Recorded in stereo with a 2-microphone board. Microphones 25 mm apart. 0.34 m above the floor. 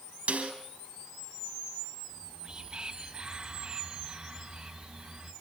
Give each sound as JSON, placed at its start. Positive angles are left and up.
{"t": 0.3, "sound": "a snare drum", "side_deg": -55, "distance_m": 4.5}
{"t": 2.1, "sound": "whispering", "side_deg": -40, "distance_m": 2.0}